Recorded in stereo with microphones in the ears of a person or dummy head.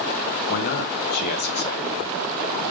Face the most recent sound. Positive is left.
turn(degrees=55)  # may be behind; listen again after turning